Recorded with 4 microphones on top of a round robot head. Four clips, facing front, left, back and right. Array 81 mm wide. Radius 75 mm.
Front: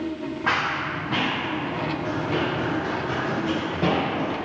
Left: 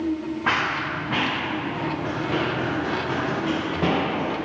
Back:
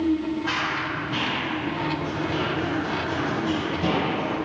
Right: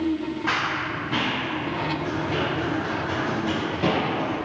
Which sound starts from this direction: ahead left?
Running footsteps, at 0.5 s.